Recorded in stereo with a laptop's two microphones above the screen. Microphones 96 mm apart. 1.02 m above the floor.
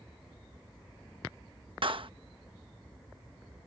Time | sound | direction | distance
1.8 | a clap | 65° right (ahead or behind) | ?